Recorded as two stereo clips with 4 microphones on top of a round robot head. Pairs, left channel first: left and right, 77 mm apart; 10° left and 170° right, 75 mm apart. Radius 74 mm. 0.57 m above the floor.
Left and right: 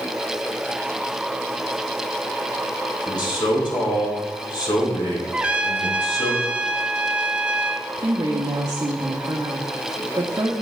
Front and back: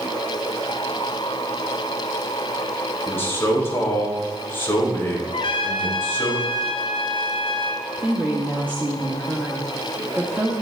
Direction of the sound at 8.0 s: 115° right.